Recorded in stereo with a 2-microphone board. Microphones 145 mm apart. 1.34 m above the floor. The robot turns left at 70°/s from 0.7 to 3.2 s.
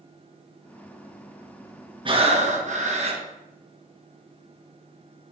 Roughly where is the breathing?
Ahead right.